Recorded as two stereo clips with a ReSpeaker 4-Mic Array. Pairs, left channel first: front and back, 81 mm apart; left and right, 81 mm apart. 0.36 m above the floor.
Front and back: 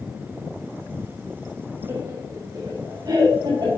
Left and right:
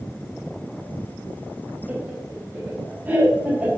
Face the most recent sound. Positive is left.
turn(degrees=-160)